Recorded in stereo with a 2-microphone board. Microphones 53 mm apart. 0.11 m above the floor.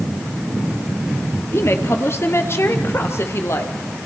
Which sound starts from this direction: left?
A woman speaking, at 1.5 s.